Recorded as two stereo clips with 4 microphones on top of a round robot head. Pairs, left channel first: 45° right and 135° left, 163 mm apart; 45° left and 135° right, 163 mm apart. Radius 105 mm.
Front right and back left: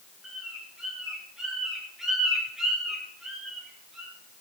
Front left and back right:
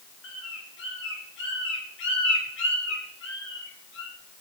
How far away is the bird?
About 3.5 m.